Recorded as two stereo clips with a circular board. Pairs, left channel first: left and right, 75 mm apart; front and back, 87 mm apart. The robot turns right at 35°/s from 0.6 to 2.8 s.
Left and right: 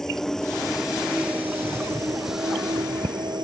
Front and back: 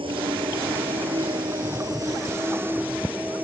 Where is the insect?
175° left; by 3.5 s 110° right.